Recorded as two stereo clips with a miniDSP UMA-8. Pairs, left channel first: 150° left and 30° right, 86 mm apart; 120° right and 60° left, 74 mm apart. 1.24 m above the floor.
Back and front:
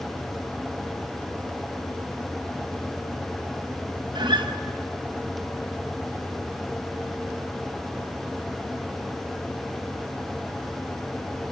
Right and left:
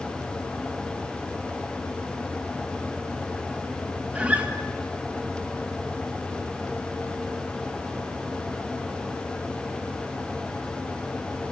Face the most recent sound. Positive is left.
turn(degrees=-10)